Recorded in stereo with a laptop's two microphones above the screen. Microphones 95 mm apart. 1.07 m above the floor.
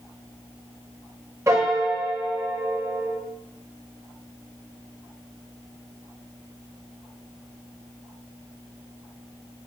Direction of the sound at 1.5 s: 30° right (ahead or behind).